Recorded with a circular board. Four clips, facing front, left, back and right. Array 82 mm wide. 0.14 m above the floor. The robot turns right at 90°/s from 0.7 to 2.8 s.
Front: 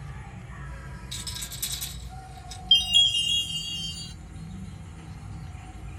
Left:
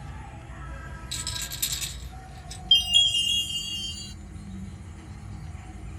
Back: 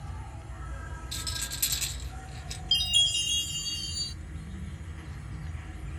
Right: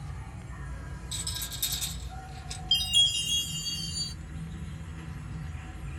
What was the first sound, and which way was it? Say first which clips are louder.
An insect: left 2 dB, front 1 dB; 50° left.